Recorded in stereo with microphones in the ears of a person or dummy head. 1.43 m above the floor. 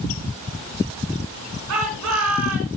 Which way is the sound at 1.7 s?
85° right.